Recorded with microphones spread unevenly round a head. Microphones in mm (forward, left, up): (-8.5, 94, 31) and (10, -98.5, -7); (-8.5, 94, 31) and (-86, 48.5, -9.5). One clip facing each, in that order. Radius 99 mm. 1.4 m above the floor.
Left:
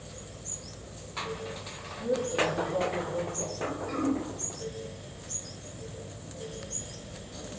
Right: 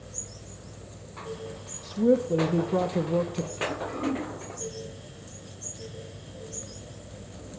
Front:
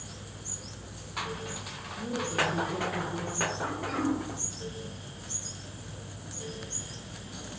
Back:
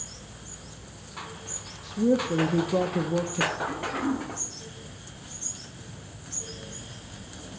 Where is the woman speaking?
100° right, 0.9 m.